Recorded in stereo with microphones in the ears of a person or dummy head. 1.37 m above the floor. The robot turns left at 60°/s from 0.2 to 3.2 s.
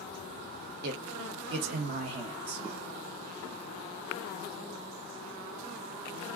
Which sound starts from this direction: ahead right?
A man speaking, at 0.8 s.